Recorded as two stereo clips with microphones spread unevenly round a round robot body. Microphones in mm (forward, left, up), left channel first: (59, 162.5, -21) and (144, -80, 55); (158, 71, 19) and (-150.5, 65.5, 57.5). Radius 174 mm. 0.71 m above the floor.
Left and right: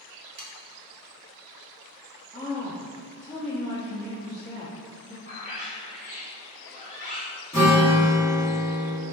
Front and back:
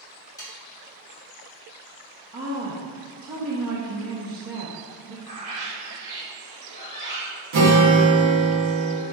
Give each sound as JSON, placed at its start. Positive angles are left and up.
{"t": 0.4, "sound": "sawing", "azimuth_deg": -60, "distance_m": 1.1}
{"t": 2.3, "sound": "a woman speaking", "azimuth_deg": 160, "distance_m": 0.7}
{"t": 5.2, "sound": "a bird", "azimuth_deg": -150, "distance_m": 1.5}
{"t": 7.5, "sound": "a guitar", "azimuth_deg": -170, "distance_m": 1.3}